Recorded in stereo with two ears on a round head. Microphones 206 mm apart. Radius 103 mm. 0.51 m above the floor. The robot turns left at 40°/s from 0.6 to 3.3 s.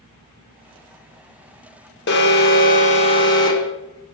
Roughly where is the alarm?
Left.